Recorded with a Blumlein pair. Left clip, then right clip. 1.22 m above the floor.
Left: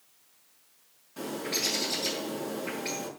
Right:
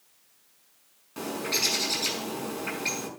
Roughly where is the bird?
Ahead right.